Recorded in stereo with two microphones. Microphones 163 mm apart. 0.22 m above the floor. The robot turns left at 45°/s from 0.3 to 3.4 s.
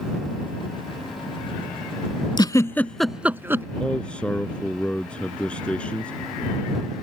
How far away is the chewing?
I don't hear chewing.